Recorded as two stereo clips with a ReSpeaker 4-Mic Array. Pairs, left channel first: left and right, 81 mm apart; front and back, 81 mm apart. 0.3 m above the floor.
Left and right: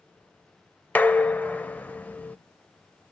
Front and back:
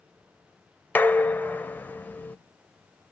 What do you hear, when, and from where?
0.9 s dishes clattering: 40° left, 0.8 m